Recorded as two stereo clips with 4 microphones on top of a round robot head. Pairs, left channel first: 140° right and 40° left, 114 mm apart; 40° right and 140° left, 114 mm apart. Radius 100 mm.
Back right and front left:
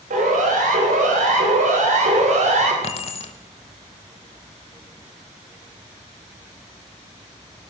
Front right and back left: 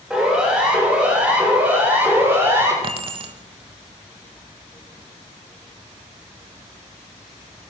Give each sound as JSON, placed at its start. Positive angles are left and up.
{"t": 0.1, "sound": "a siren", "azimuth_deg": 55, "distance_m": 10.0}
{"t": 2.8, "sound": "keys jangling", "azimuth_deg": -175, "distance_m": 1.2}